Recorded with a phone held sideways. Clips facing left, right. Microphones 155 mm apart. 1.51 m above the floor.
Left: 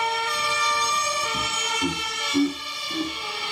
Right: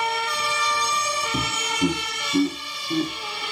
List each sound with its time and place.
1.3 s laughter: 55° right (ahead or behind), 0.6 m; by 3.4 s 35° right (ahead or behind), 2 m